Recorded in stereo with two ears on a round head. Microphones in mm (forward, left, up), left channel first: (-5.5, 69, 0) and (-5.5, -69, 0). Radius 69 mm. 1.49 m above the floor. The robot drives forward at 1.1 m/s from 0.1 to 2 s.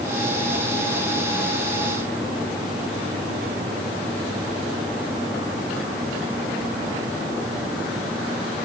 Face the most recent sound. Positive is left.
No sound to turn to.